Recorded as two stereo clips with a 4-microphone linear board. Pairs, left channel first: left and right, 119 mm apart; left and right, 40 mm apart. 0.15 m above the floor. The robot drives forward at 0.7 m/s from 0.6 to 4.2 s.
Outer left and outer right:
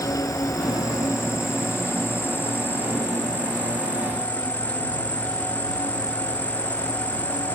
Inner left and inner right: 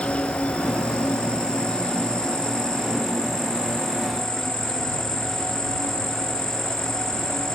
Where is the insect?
30° left (ahead or behind); by 7.6 s 10° left (ahead or behind).